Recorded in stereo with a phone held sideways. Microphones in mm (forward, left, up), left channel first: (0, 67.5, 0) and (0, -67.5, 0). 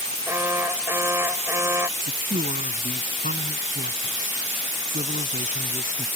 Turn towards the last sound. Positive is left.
turn(degrees=-80)